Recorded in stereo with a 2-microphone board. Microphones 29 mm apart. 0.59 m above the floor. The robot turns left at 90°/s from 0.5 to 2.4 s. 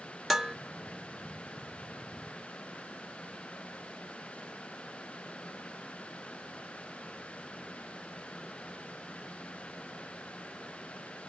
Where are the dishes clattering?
5° right (ahead or behind), 0.6 m.